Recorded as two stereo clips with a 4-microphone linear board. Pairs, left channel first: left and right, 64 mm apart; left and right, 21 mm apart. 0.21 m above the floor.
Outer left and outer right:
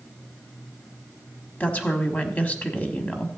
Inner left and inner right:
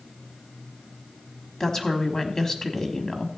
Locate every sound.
1.6 s a woman speaking: 25° left (ahead or behind), 1.1 m